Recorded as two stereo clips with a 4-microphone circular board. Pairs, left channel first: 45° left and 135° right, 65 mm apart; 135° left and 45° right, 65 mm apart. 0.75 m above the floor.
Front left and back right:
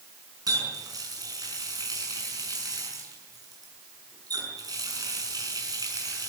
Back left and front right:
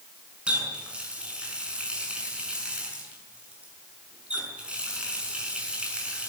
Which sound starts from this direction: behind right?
A running tap, at 0.5 s.